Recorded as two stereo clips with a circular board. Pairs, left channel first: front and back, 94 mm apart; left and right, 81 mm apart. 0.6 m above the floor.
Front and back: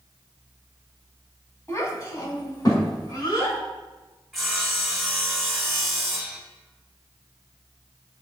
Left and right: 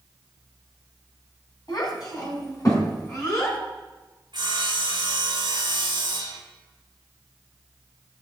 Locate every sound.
1.7 s a child speaking: 50° left, 3 m; by 3.6 s 30° left, 4.5 m
4.3 s sawing: 90° right, 2.5 m